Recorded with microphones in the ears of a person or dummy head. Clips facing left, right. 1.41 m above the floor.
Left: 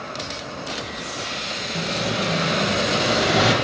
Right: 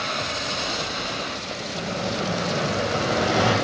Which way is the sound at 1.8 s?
30° left (ahead or behind).